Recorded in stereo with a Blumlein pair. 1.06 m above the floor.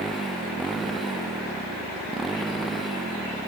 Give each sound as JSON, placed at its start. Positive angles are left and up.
{"t": 0.0, "sound": "a motorcycle", "azimuth_deg": -15}